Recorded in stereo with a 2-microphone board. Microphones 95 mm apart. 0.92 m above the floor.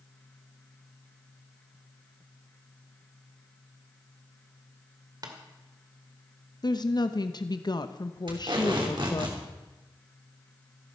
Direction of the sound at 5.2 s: 45° right (ahead or behind).